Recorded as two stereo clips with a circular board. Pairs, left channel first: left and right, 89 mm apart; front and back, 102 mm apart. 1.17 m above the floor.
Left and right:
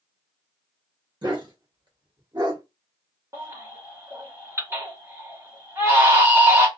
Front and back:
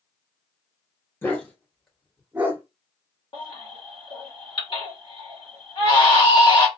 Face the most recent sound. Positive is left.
turn(degrees=-30)